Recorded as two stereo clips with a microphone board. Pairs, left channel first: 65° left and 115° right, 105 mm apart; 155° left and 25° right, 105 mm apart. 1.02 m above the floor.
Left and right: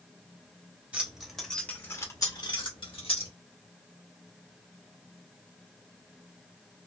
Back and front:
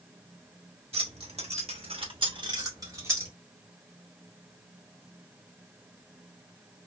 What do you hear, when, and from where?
0.9 s keys jangling: 35° right, 1.0 m; by 3.3 s 45° left, 1.2 m